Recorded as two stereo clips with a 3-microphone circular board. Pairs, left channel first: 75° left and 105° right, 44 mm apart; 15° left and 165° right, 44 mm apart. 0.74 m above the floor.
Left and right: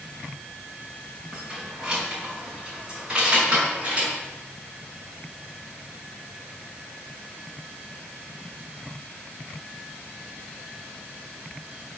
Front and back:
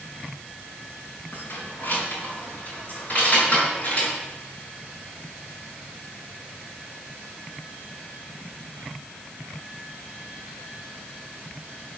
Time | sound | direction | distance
1.3 | keys jangling | 25° right | 4.5 m